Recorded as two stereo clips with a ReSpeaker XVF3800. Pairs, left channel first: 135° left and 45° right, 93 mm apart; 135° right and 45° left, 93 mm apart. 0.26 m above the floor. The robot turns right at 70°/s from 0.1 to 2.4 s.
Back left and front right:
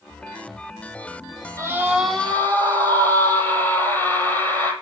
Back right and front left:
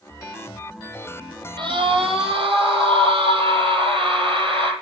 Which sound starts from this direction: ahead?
A scream, at 1.6 s.